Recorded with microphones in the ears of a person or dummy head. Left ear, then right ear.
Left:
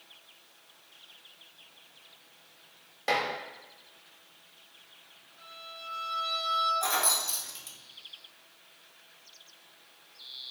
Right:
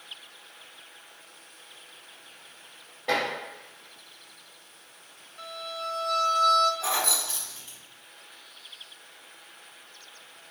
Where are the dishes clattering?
60° left (ahead or behind), 1.5 m.